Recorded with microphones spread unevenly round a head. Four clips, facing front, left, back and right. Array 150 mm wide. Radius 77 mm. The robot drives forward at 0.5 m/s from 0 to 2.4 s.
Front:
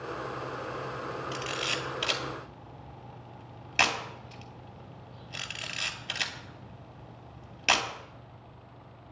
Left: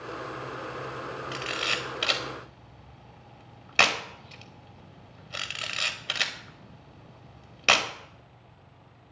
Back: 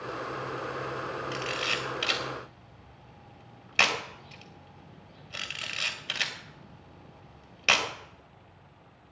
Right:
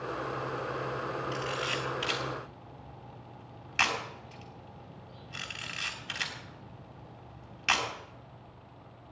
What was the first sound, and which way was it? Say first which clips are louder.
A camera shutter: even, back 1 dB; 80° left.